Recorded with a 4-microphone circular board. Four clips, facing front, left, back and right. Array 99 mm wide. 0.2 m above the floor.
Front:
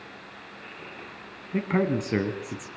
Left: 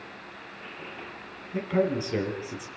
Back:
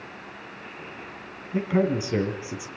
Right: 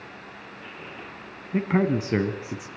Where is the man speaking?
60° right, 2 m.